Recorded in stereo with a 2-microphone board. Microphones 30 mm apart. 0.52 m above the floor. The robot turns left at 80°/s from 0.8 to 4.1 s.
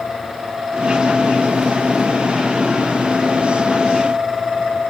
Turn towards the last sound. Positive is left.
No sound to turn to.